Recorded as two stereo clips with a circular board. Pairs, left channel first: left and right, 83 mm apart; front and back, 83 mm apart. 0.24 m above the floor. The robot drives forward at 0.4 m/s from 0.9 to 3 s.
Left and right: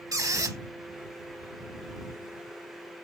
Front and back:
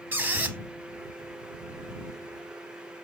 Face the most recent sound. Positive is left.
turn(degrees=-160)